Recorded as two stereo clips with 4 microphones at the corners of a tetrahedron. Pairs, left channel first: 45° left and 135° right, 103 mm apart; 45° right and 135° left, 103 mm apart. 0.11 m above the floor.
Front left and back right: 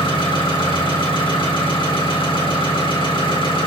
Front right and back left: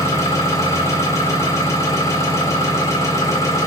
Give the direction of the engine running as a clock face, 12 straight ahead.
12 o'clock.